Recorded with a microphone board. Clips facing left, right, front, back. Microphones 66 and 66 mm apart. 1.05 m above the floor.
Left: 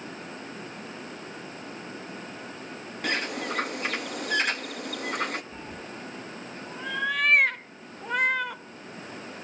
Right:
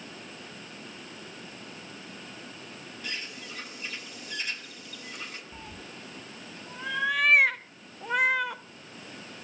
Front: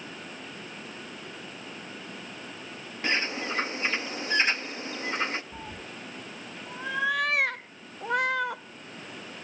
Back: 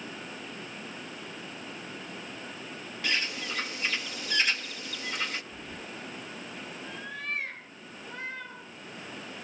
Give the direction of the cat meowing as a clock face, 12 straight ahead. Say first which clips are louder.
Left 5 dB, front 1 dB; 12 o'clock.